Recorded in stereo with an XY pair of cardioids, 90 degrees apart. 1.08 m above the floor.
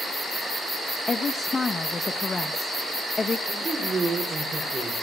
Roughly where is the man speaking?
Ahead right.